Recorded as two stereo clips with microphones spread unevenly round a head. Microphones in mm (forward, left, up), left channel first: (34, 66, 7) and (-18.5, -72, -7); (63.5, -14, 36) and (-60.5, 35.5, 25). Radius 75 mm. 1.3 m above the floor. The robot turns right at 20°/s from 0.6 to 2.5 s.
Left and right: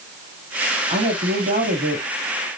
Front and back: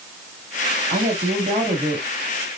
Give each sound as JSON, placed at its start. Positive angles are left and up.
{"t": 0.9, "sound": "a woman speaking", "azimuth_deg": -165, "distance_m": 2.5}